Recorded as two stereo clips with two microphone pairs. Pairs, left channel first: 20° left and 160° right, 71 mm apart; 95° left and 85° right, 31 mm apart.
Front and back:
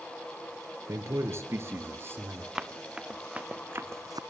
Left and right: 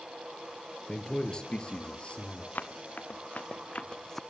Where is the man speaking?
160° left, 3.5 m; by 2.5 s 145° left, 4 m.